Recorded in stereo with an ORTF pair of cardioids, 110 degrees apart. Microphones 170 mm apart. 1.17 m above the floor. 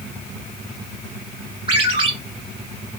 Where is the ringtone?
30° right, 1.9 m.